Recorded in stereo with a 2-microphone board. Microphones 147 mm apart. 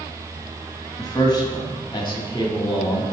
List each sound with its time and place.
1.0 s a man speaking: 25° left (ahead or behind), 1.2 m; by 3.0 s 30° left (ahead or behind), 1.7 m